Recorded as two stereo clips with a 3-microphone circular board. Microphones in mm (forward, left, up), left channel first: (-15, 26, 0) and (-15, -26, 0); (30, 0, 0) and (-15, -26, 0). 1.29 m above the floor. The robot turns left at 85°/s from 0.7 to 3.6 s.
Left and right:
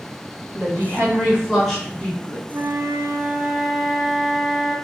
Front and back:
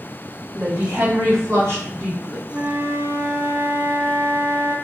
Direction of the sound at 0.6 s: 95° right.